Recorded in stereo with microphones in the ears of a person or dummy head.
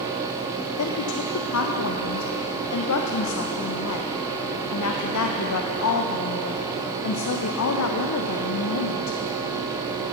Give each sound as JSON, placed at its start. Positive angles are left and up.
{"t": 0.8, "sound": "a woman speaking", "side_deg": 90, "distance_m": 0.6}